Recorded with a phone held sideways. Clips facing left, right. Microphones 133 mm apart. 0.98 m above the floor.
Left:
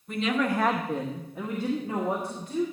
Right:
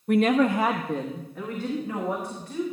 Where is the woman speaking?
70° right (ahead or behind), 0.6 m; by 2.6 s 30° left (ahead or behind), 3 m.